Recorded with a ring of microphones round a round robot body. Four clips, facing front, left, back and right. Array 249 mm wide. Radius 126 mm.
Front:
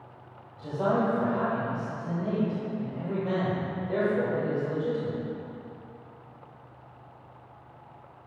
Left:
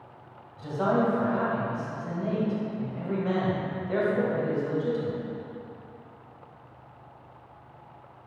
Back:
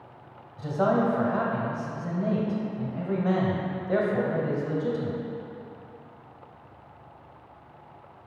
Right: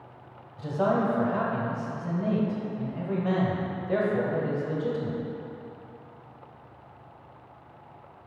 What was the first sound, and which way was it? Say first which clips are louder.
A man speaking: even, back 3 dB; 140° right.